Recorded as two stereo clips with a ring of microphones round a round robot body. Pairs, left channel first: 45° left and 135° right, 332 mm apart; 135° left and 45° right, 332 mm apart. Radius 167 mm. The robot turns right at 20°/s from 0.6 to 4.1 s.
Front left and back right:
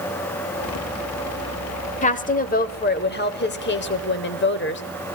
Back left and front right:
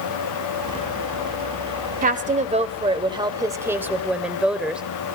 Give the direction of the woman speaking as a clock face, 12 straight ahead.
12 o'clock.